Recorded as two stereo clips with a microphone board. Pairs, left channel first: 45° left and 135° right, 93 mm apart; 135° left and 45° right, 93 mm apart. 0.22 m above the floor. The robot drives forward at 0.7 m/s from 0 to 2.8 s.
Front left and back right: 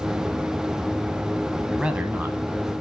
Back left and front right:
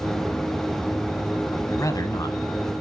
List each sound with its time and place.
1.7 s a man speaking: 150° left, 1.1 m; by 2.4 s 165° left, 1.4 m